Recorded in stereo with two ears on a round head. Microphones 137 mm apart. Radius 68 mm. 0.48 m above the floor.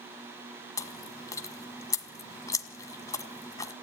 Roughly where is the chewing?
Left.